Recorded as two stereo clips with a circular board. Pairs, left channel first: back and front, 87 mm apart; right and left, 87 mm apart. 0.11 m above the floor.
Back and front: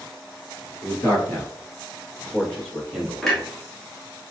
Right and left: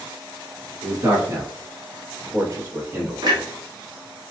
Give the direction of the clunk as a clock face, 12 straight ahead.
9 o'clock.